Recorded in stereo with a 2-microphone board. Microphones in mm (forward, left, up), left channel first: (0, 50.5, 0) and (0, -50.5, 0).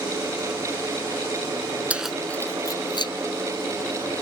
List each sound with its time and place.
1.9 s keys jangling: 15° right (ahead or behind); by 3.1 s 55° left (ahead or behind)